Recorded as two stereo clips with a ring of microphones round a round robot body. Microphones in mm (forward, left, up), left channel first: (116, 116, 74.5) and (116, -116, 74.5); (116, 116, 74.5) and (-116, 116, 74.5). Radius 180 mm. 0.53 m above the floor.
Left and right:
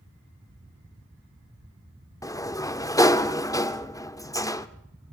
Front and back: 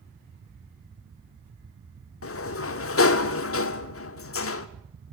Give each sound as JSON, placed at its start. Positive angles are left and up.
{"t": 2.2, "sound": "a sliding door", "azimuth_deg": 15, "distance_m": 1.1}